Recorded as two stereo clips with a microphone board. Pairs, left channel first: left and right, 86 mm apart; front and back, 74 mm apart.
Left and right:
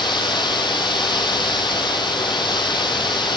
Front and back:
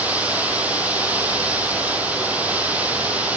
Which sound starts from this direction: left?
Running water, at 0.0 s.